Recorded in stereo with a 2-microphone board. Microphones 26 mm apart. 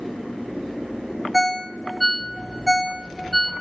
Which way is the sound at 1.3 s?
Centre (ahead or behind).